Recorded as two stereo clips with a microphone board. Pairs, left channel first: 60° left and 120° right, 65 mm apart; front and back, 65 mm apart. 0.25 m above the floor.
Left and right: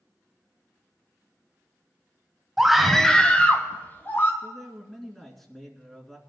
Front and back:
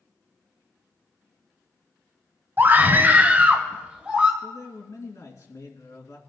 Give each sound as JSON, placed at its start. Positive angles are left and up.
{"t": 2.6, "sound": "a scream", "azimuth_deg": 165, "distance_m": 1.0}
{"t": 4.4, "sound": "a man speaking", "azimuth_deg": -25, "distance_m": 2.5}